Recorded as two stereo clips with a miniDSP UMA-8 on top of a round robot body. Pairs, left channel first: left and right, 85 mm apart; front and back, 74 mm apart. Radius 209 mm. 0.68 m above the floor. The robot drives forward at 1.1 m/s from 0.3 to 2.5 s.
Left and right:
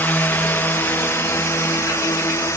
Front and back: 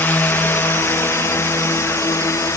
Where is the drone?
40° left.